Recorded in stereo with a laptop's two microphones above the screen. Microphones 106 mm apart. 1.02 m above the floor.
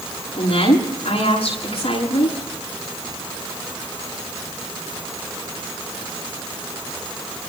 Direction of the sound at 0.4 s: 75° left (ahead or behind).